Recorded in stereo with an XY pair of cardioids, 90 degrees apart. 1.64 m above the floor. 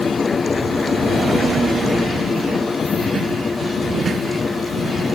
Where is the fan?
30° left.